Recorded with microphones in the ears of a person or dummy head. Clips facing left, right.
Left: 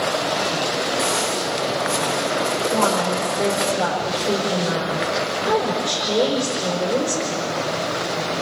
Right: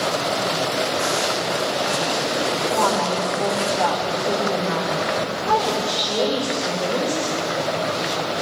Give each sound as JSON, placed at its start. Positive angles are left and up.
{"t": 1.0, "sound": "footsteps", "side_deg": -15, "distance_m": 3.5}
{"t": 2.7, "sound": "a woman speaking", "side_deg": 20, "distance_m": 5.5}